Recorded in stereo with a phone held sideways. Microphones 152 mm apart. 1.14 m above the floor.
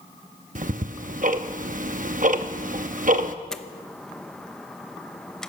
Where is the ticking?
60° right (ahead or behind), 0.7 m.